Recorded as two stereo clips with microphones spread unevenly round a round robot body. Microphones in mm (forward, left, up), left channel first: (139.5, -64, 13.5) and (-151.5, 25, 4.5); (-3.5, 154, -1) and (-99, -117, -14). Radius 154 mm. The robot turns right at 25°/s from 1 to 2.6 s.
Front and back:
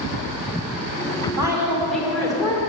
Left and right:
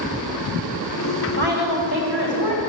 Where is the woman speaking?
120° right, 3 m; by 2.7 s 90° right, 3 m.